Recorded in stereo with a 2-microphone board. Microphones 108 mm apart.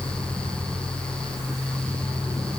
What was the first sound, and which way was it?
Only background noise.